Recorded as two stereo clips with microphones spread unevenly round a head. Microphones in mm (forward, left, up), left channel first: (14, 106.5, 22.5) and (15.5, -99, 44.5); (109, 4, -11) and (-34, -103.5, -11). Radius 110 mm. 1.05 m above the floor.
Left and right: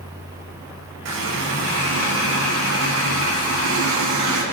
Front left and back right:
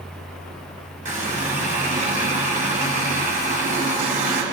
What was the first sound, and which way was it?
A running tap, 95° right.